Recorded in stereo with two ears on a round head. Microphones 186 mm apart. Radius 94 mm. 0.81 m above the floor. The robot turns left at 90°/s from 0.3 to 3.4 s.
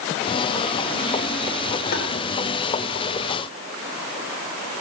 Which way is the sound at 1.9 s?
50° left (ahead or behind).